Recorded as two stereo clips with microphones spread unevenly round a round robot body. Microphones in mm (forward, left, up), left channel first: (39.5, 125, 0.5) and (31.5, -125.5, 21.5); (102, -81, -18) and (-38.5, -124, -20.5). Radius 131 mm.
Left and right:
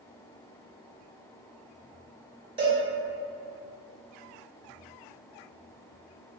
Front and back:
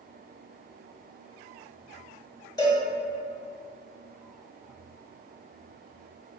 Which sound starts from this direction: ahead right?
A cowbell, at 2.6 s.